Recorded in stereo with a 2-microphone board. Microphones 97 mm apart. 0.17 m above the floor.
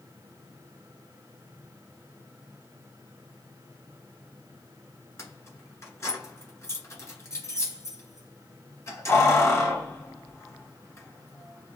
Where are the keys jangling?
30° left (ahead or behind), 1.6 m.